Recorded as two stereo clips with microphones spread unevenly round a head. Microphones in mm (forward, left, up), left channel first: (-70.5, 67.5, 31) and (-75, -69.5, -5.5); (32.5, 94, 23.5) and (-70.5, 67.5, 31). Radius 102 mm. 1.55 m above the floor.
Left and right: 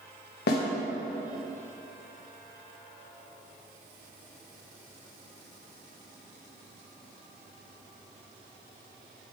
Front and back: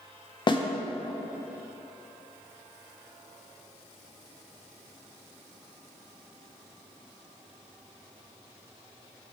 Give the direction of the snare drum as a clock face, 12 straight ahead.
10 o'clock.